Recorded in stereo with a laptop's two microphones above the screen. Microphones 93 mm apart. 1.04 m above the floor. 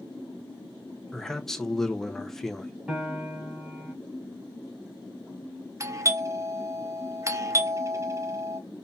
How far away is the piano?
About 2.5 m.